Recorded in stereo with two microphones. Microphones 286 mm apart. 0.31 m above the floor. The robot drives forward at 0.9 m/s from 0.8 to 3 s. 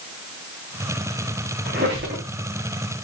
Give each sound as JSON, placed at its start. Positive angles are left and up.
{"t": 1.6, "sound": "a squeak", "side_deg": -35, "distance_m": 3.5}